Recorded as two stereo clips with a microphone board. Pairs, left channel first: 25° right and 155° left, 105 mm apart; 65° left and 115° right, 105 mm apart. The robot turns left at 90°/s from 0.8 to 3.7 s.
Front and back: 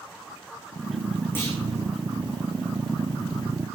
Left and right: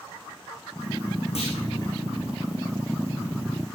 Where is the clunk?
50° left, 6.5 m; by 1.6 s 30° left, 6.5 m.